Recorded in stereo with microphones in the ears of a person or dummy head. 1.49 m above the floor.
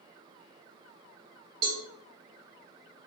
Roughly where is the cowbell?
Right.